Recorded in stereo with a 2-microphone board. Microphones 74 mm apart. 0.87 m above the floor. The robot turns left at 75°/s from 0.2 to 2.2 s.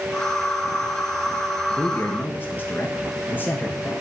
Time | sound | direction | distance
1.7 | a man speaking | 25° left (ahead or behind) | 1.0 m